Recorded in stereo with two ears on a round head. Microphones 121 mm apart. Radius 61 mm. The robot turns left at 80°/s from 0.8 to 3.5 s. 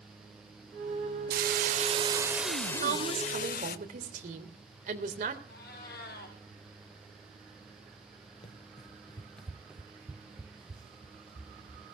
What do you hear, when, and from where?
1.3 s a hiss: 85° right, 0.9 m; by 3.8 s 100° left, 0.9 m
2.8 s a woman speaking: 55° right, 3 m; by 5.4 s 115° right, 3 m
5.5 s a cat meowing: 80° left, 4.5 m
8.4 s running footsteps: 45° left (ahead or behind), 1.3 m; by 11.8 s 30° right (ahead or behind), 4 m